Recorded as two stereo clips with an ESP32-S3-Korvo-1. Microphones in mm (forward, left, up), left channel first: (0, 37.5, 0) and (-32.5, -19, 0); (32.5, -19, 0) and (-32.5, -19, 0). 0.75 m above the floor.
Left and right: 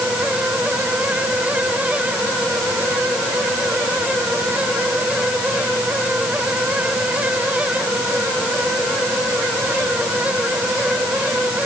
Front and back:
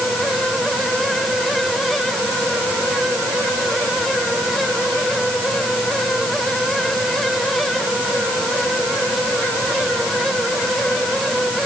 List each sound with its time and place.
Only background noise.